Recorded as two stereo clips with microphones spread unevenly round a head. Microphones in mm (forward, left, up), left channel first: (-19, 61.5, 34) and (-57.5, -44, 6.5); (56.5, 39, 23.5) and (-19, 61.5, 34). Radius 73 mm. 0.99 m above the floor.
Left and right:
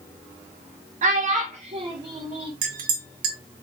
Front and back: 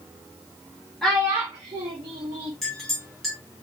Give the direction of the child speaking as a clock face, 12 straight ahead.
3 o'clock.